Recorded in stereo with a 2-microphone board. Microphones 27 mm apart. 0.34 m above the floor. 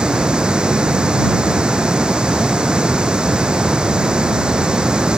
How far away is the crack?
No crack in this recording.